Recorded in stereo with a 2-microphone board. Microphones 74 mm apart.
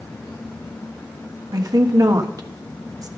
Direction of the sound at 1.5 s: 55° right (ahead or behind).